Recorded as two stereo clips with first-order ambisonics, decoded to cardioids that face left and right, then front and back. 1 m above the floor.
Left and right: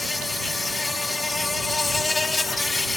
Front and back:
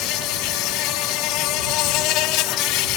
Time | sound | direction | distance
0.0 | an insect | 10° left | ?